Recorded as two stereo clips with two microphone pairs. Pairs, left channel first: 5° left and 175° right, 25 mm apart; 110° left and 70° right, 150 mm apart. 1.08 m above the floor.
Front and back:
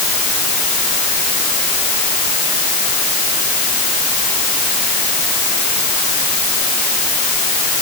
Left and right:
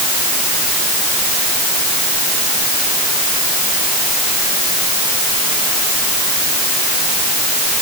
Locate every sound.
Only background noise.